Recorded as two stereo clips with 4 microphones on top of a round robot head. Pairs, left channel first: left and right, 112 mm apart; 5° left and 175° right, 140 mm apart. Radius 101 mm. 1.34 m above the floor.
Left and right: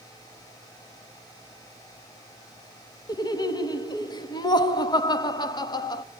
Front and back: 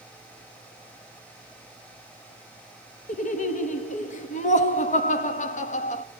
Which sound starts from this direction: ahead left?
Laughter, at 3.1 s.